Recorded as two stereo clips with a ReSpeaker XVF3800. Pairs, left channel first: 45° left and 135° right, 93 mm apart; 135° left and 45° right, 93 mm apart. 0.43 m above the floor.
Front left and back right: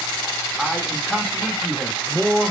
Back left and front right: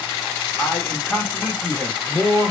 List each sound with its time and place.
0.6 s a man speaking: 140° left, 0.8 m